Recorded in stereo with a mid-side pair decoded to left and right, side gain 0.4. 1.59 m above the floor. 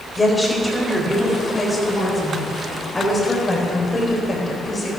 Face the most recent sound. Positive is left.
turn(degrees=35)